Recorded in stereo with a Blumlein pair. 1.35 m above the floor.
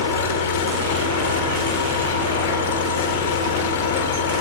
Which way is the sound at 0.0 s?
60° left.